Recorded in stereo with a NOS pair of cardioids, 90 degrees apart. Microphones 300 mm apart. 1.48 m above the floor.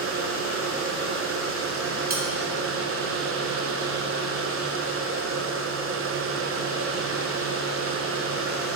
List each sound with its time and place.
0.0 s a machine running: 45° right, 0.9 m
2.1 s cutlery clinking: 30° right, 2.5 m